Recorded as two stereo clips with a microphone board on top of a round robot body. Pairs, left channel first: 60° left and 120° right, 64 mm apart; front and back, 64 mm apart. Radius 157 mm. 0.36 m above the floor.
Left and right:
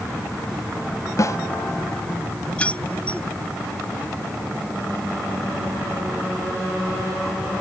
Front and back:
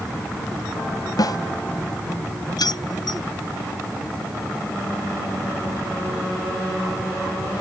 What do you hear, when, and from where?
1.2 s a snare drum: 20° left
2.6 s keys jangling: 10° right